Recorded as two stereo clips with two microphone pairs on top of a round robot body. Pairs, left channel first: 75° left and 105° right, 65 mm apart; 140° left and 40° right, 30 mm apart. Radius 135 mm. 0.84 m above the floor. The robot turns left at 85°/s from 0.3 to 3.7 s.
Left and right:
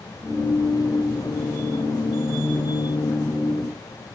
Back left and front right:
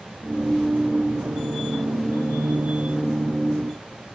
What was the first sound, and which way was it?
Only background noise.